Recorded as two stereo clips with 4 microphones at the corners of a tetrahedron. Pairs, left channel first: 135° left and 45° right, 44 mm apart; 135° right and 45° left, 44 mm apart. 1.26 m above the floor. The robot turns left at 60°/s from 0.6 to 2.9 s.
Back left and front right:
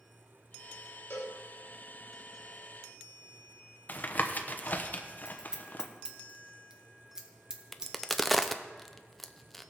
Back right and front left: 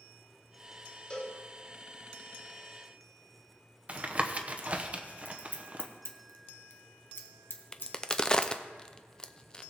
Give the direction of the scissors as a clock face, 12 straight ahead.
4 o'clock.